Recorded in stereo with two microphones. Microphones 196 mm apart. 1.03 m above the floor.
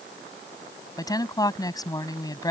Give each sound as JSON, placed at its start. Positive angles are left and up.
{"t": 1.0, "sound": "a woman speaking", "side_deg": 20}